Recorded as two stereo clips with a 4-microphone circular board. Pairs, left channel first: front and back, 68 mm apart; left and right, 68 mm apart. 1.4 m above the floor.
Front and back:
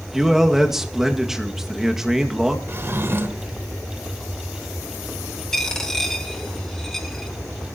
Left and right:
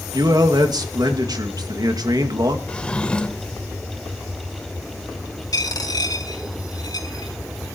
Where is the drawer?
155° left, 1.3 m.